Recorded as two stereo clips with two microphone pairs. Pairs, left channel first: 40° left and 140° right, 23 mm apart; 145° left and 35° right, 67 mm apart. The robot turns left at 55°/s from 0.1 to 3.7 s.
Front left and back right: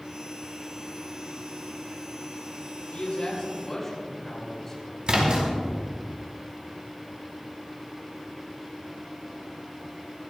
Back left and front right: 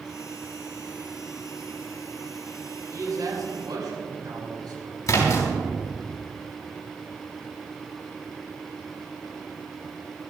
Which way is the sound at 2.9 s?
5° left.